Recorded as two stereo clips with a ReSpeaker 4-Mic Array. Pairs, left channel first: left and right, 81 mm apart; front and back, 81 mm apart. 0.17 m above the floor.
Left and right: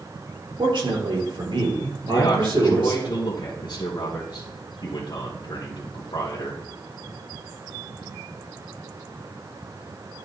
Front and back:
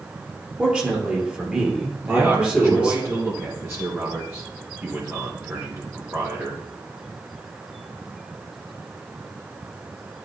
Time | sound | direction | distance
0.6 | a man speaking | 100° right | 3.5 m
2.1 | a man speaking | 110° left | 2.5 m